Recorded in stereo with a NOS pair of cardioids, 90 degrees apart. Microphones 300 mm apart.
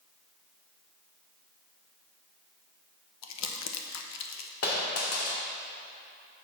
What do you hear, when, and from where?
3.2 s crumpling: 65° left, 0.9 m
4.6 s a dropped coin: 55° left, 1.9 m